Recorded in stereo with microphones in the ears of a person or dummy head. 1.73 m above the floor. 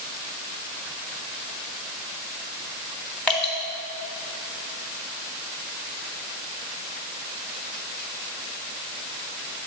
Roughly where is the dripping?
Centre.